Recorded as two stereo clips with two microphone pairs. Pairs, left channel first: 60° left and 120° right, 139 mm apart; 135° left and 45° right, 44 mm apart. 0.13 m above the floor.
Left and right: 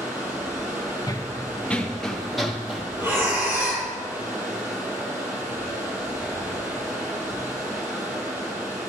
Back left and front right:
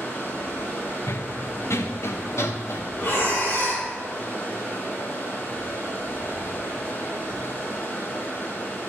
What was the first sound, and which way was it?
Running water, 165° left.